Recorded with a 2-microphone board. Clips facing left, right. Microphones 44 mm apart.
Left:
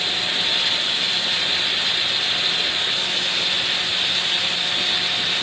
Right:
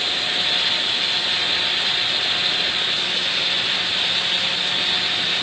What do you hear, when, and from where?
Only background noise.